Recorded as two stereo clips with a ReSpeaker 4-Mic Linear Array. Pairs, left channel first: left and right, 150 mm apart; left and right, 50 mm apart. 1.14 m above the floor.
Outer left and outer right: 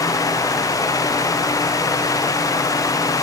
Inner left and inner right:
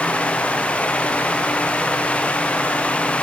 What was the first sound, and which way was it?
Only background noise.